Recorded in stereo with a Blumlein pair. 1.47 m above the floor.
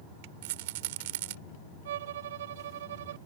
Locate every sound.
0.4 s a rattle: 50° right
1.9 s a violin: 60° right